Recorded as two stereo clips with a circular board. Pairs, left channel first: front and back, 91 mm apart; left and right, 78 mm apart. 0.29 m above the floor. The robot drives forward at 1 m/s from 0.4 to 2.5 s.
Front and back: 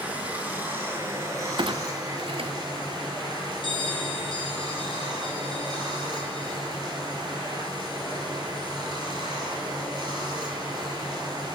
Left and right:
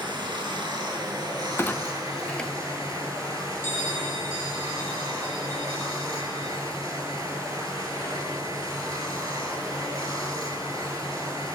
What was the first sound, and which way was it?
Running water, 110° right.